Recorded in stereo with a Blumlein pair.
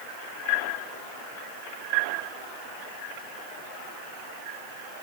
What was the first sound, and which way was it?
Only background noise.